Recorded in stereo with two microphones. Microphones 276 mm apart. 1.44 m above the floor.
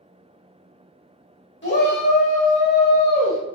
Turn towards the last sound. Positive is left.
turn(degrees=15)  # may be behind; listen again after turning